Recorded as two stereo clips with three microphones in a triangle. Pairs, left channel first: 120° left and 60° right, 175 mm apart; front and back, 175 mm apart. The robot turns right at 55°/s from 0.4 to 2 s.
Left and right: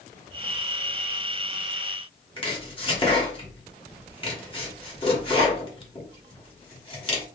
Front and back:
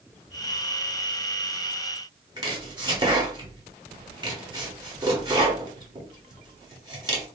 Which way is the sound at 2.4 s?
140° left.